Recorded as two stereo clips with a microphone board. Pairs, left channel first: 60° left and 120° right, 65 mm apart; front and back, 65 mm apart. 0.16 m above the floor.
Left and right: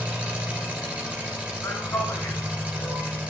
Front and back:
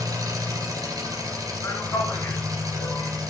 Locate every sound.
0.0 s an engine running: 170° left, 2.5 m
1.6 s a man speaking: 30° left, 2.5 m